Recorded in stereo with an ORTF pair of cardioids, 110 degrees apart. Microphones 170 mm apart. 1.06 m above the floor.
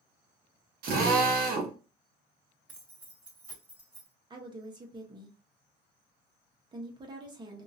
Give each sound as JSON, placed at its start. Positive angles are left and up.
{"t": 0.8, "sound": "a drill", "azimuth_deg": -55, "distance_m": 1.2}
{"t": 2.7, "sound": "keys jangling", "azimuth_deg": -10, "distance_m": 2.0}
{"t": 4.3, "sound": "a woman speaking", "azimuth_deg": -25, "distance_m": 1.1}